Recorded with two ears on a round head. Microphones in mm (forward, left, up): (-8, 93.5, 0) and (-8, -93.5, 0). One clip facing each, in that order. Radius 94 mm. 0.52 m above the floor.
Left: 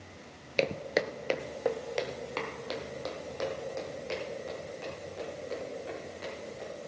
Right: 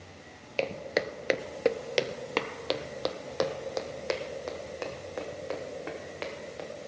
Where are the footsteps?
25° left (ahead or behind), 0.5 m; by 6.7 s 80° right, 3 m.